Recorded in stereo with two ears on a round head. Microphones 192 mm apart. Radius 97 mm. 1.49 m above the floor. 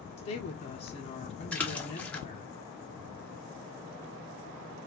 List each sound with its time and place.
0.2 s a woman speaking: 40° left (ahead or behind), 1.1 m
1.5 s a splash: 5° left (ahead or behind), 1.0 m